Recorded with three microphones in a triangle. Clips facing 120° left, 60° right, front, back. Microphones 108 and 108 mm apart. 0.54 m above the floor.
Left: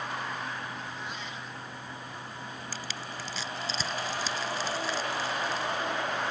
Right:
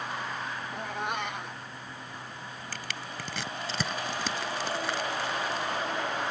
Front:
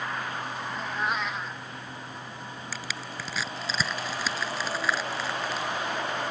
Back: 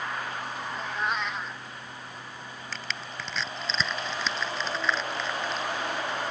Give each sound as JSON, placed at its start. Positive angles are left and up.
{"t": 0.7, "sound": "a cat meowing", "azimuth_deg": -90}
{"t": 2.7, "sound": "crushing", "azimuth_deg": -85}